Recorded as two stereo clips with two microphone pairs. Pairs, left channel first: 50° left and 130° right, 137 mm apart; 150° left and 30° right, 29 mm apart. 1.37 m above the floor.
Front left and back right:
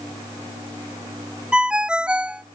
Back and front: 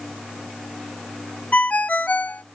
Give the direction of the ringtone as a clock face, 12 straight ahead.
7 o'clock.